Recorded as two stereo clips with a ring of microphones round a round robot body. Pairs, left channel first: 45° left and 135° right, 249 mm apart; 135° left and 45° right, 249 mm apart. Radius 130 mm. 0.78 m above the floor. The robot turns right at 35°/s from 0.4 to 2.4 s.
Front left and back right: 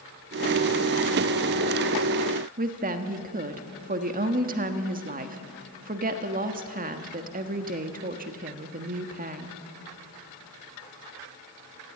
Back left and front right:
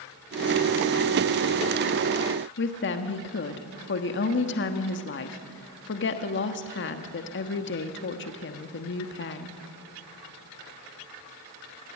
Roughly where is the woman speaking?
Behind.